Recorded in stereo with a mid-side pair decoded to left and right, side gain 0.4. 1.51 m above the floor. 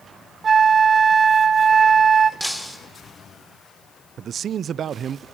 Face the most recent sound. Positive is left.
turn(degrees=-60)